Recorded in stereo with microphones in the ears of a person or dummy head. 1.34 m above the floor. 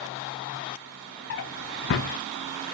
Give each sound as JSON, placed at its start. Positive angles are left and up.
{"t": 1.3, "sound": "a drawer", "side_deg": 55, "distance_m": 0.7}